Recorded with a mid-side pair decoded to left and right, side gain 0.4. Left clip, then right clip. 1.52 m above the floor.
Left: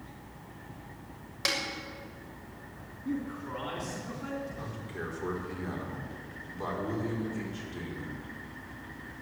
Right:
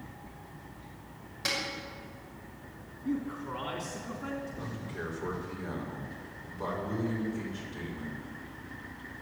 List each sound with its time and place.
1.4 s a snare drum: 50° left, 6.5 m
3.0 s a man speaking: 15° right, 3 m
4.6 s a man speaking: 25° left, 5 m